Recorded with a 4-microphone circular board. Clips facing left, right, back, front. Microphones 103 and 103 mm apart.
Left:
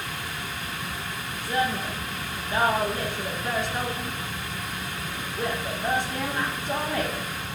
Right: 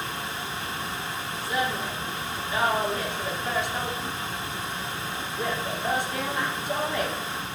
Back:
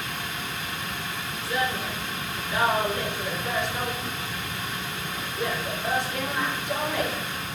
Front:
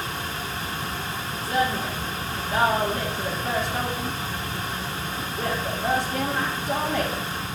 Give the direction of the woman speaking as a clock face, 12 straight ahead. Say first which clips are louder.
Left 2 dB, front 4 dB; 10 o'clock.